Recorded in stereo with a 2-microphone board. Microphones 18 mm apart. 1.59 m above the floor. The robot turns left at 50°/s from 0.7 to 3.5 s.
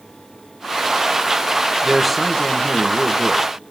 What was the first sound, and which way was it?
A man speaking, 165° right.